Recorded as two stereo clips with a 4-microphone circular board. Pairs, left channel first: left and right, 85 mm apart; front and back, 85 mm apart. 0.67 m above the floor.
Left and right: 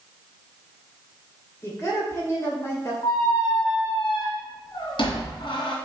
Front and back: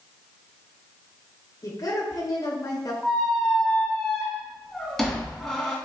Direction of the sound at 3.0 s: 85° left.